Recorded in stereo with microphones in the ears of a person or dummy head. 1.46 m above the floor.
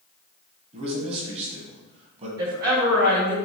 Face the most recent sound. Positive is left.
turn(degrees=-50)  # may be behind; listen again after turning